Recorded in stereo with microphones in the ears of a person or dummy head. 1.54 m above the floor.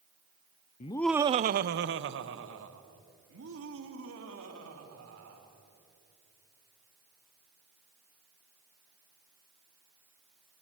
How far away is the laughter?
About 0.6 m.